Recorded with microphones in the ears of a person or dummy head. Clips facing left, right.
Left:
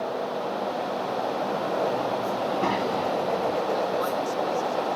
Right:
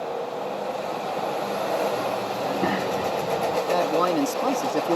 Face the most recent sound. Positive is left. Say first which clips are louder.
# right 4 dB
turn(degrees=-75)  # may be behind; listen again after turning